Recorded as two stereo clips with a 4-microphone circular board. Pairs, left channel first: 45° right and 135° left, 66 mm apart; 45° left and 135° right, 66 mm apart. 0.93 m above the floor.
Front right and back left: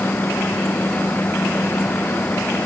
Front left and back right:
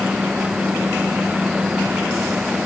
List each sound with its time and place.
Only background noise.